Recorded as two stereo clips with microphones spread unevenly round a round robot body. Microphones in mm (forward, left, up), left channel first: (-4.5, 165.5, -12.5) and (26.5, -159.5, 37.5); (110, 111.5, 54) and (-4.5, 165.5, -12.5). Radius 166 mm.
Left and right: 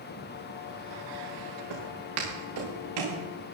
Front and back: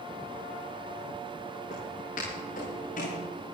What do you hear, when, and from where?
1.7 s footsteps: 75° right, 5.5 m